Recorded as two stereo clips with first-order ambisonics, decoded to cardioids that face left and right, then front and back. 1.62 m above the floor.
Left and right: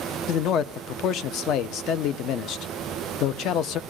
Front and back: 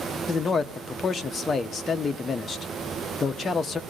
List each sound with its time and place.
0.3 s a man speaking: 65° left, 0.6 m